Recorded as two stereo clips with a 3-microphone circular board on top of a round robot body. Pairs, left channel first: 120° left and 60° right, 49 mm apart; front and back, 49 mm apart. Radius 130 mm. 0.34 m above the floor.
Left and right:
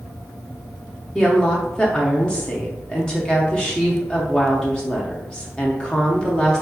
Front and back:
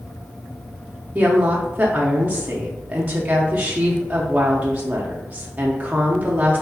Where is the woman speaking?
Straight behind, 1.0 m.